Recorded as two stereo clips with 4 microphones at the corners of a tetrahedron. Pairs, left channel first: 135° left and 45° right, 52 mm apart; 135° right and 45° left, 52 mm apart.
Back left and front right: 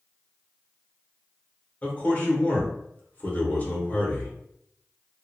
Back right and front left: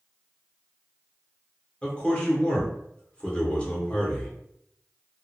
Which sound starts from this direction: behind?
A man speaking, at 1.8 s.